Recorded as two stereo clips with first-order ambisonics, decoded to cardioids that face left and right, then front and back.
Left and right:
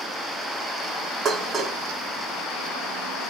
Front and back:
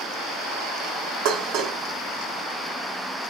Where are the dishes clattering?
160° right, 0.7 m.